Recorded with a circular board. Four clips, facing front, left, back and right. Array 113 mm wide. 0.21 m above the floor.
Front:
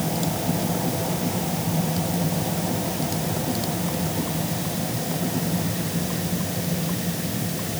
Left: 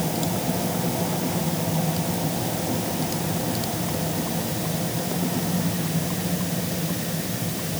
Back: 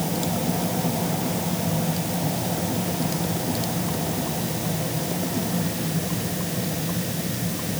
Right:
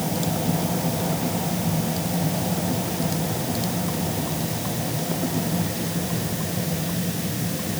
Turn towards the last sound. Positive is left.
No sound to turn to.